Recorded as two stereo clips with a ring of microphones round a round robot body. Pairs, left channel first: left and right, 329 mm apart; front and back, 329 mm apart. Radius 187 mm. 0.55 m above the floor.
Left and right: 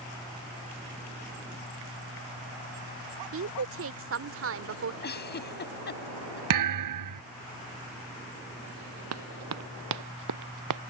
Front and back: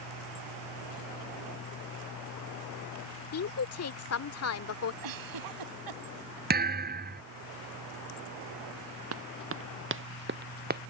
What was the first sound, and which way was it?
A woman speaking, 40° right.